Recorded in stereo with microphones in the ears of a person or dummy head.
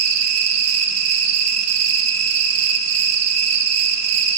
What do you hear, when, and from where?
0.0 s an insect: 70° right (ahead or behind), 1.2 m